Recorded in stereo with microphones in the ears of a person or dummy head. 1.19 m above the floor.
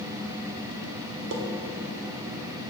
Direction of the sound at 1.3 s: 65° right (ahead or behind).